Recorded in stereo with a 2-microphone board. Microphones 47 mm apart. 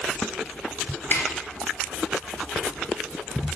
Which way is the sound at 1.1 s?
55° left (ahead or behind).